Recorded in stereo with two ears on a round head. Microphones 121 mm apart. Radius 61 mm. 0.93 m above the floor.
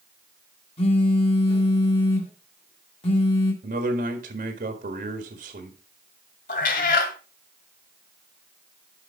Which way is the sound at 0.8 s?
40° left (ahead or behind).